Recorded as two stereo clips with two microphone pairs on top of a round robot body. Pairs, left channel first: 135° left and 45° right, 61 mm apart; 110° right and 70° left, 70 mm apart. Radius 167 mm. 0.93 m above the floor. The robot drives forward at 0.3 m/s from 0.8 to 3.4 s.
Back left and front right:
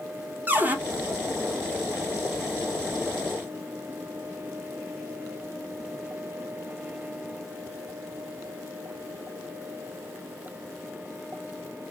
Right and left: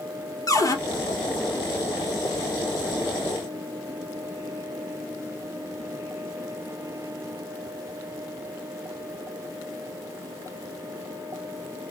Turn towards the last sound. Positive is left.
turn(degrees=-135)